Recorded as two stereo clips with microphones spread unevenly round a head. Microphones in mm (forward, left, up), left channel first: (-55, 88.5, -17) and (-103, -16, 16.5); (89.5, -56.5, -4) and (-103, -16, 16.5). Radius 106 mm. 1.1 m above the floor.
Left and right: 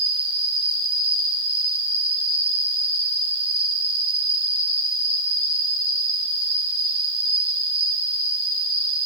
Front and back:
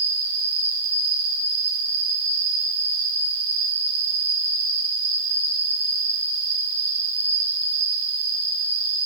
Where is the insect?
160° right, 2 m.